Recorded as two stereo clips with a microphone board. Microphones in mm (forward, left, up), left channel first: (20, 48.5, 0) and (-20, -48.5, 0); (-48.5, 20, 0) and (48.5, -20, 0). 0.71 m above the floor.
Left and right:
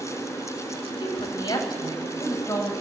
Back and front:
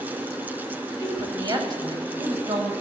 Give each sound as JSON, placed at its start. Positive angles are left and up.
{"t": 1.0, "sound": "a woman speaking", "azimuth_deg": 30, "distance_m": 5.0}